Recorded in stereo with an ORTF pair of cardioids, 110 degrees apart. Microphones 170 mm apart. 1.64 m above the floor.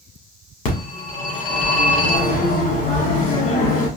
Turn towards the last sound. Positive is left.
turn(degrees=55)